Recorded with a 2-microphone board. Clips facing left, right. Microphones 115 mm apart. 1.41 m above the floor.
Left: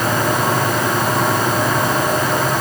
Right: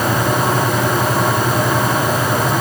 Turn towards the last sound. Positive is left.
No sound to turn to.